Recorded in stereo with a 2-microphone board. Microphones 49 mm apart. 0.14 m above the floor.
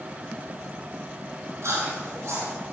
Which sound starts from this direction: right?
Chewing, at 1.6 s.